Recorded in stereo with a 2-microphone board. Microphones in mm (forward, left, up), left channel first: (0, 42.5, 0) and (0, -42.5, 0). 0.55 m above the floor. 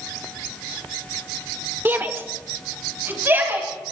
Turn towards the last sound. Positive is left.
turn(degrees=-25)  # may be behind; listen again after turning